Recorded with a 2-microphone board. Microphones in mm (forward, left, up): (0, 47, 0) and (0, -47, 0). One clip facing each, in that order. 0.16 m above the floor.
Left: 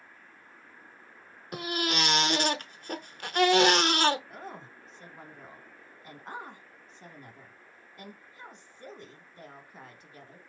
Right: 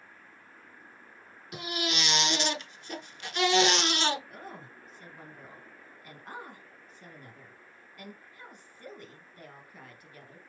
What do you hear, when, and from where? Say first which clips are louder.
1.5 s a baby crying: left 3 dB; 45° left (ahead or behind), 0.6 m
4.3 s a woman speaking: left 2 dB; 25° left (ahead or behind), 1.1 m